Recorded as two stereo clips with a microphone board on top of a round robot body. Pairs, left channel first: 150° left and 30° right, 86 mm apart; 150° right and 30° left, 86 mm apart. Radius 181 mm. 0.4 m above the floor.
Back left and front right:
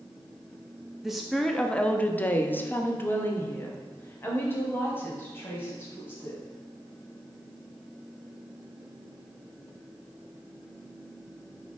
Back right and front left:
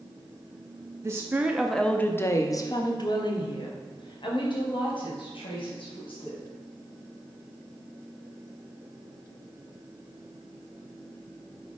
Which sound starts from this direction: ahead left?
A woman speaking, at 1.0 s.